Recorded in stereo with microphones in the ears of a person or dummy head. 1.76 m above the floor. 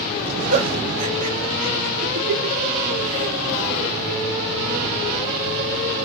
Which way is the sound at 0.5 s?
40° right (ahead or behind).